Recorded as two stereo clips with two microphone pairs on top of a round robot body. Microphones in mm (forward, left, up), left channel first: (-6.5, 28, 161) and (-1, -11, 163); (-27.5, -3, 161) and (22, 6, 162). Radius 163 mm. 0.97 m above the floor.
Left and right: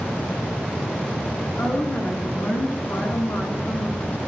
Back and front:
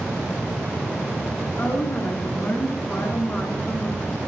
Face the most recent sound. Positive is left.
turn(degrees=120)